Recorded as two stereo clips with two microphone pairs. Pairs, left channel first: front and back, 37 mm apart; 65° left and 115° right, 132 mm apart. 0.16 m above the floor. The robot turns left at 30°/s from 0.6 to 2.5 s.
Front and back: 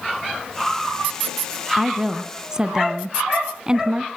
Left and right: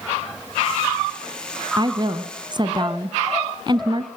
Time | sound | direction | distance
1.8 | a woman speaking | 100° right | 1.2 m